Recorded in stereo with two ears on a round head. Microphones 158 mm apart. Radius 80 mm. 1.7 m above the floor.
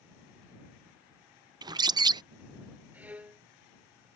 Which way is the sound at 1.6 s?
25° right (ahead or behind).